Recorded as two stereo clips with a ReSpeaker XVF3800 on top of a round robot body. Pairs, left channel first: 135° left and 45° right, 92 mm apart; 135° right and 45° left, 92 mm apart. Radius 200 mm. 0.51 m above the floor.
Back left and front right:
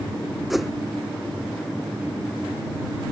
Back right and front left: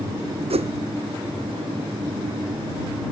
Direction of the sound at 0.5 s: 45° left.